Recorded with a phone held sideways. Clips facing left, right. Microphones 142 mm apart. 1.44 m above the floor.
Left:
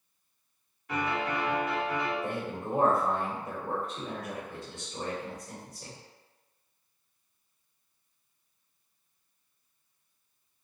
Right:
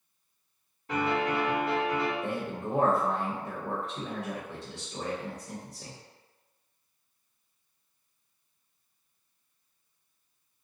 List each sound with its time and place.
0.9 s a piano: 35° right (ahead or behind), 1.6 m
2.2 s a man speaking: 75° right (ahead or behind), 1.0 m